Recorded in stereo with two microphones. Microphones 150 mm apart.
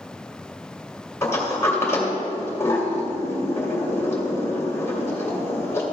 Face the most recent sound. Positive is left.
turn(degrees=20)  # may be behind; listen again after turning